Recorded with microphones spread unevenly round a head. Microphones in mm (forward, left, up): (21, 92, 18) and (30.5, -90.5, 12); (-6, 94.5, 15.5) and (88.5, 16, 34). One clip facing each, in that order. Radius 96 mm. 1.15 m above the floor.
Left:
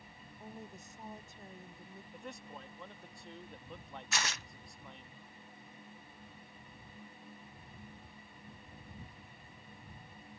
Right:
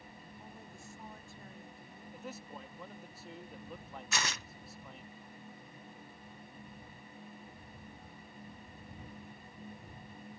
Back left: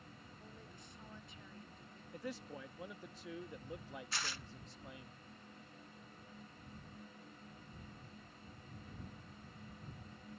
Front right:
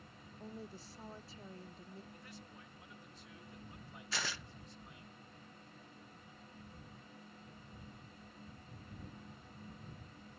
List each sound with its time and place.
0.4 s a woman speaking: 20° left
2.1 s a man speaking: 175° right
4.1 s tearing paper: 80° right